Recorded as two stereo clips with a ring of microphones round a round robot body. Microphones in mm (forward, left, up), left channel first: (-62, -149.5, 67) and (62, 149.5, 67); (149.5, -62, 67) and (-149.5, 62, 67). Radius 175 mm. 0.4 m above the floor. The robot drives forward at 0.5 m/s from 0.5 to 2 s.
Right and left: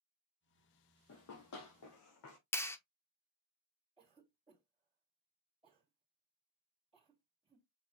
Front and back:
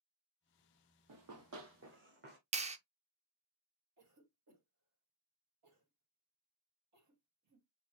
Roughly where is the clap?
Behind.